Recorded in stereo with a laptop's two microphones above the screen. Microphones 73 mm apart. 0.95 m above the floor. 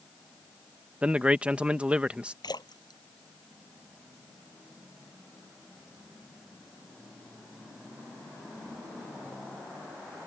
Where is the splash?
70° left (ahead or behind).